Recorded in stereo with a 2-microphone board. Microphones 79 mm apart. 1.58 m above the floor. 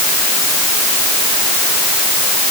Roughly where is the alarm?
No alarm in this recording.